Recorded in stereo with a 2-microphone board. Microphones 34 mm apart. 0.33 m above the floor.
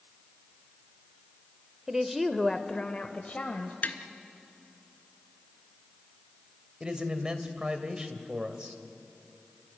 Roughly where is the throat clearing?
No throat clearing in this recording.